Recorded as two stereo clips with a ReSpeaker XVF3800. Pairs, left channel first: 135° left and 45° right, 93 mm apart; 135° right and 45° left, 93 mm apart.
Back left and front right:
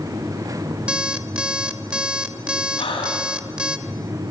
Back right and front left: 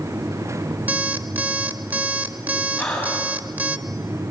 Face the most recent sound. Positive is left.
turn(degrees=145)